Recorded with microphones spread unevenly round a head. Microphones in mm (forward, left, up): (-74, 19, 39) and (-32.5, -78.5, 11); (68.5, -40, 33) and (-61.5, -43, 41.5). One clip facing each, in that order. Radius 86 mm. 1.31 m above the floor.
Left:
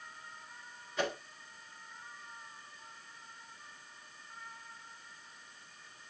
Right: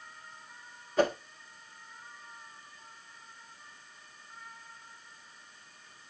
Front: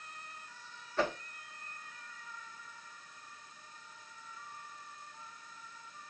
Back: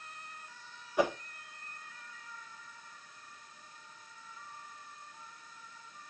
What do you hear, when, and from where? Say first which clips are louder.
1.0 s a whoosh: right 9 dB, back 4 dB; 115° right, 0.9 m